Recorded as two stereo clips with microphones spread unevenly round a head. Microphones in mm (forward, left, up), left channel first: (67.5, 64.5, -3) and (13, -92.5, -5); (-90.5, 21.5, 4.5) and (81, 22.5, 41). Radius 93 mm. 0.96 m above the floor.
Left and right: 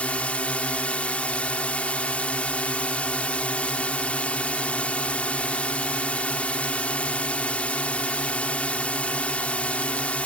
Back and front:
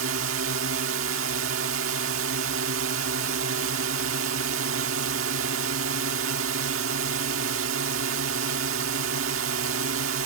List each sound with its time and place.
0.0 s a drone: 10° right